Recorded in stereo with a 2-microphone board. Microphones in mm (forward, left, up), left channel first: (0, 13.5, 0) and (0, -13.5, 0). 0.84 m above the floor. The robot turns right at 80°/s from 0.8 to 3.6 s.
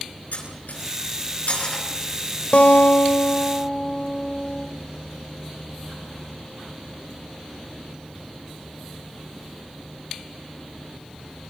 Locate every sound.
0.3 s cutlery clinking: 75° left (ahead or behind), 6 m; by 1.8 s 25° left (ahead or behind), 6 m
2.5 s a guitar: 65° left, 1.7 m; by 4.7 s 150° left, 1.7 m